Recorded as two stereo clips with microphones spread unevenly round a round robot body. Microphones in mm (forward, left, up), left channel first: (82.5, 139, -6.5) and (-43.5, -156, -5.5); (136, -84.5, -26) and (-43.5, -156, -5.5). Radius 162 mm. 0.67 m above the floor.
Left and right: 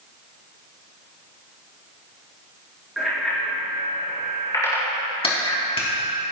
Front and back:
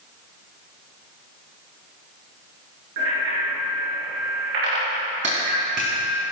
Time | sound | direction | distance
3.0 | a bicycle bell | 155° left | 7 m
5.2 | a clap | 140° left | 4.5 m